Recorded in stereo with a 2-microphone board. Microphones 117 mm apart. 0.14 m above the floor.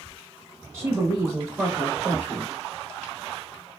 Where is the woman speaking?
20° right (ahead or behind), 1.3 m; by 2.5 s 10° right (ahead or behind), 1.4 m.